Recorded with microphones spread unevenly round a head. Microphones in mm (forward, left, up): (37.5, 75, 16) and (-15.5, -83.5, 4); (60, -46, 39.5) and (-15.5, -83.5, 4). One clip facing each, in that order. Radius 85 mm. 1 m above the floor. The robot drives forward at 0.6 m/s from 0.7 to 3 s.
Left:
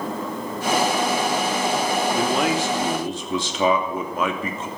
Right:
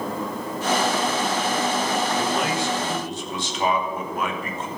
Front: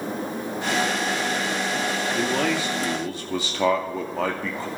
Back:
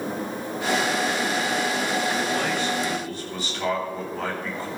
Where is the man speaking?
50° left, 3 m; by 4.7 s 60° left, 2.5 m.